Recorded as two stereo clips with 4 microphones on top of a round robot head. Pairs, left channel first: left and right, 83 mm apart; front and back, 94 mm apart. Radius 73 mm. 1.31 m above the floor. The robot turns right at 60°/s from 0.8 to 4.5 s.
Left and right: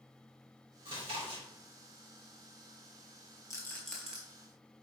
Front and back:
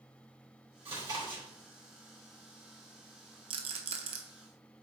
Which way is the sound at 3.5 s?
150° left.